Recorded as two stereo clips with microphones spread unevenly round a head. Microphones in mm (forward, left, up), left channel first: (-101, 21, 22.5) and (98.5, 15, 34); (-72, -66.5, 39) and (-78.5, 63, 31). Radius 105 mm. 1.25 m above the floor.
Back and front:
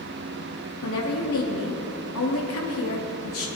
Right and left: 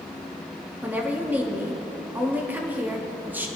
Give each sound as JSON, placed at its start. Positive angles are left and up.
{"t": 0.8, "sound": "a woman speaking", "azimuth_deg": 170, "distance_m": 3.0}